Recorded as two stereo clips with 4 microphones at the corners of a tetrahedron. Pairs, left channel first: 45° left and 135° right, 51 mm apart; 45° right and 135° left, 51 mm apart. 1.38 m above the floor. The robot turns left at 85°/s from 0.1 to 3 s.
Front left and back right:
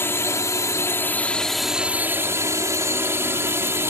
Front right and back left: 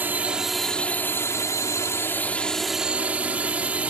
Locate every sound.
0.0 s a drone: 85° left; by 3.9 s 165° right